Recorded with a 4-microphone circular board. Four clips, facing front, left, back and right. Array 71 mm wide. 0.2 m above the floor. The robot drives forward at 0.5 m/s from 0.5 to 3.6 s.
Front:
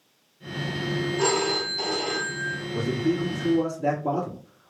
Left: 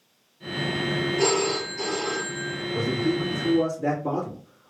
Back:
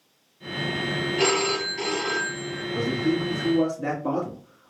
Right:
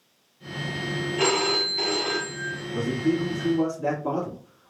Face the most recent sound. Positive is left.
turn(degrees=-175)